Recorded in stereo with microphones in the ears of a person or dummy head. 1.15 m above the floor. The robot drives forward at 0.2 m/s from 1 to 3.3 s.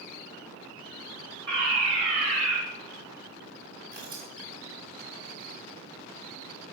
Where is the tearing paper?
45° right (ahead or behind), 1.4 m.